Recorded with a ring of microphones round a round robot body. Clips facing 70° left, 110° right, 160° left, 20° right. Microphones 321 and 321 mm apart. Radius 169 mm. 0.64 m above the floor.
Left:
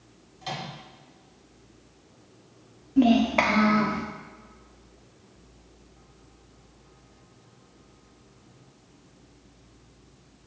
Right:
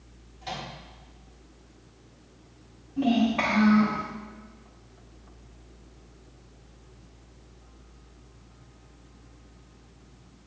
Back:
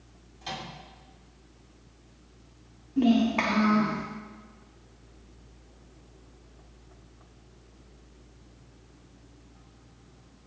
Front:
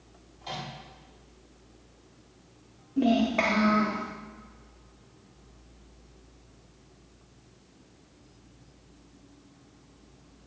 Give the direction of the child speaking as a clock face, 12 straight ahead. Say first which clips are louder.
Left 4 dB, back 2 dB; 9 o'clock.